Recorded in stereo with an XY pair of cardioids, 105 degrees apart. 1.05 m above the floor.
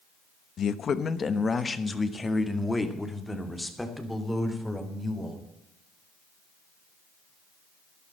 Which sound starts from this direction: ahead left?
A man speaking, at 0.6 s.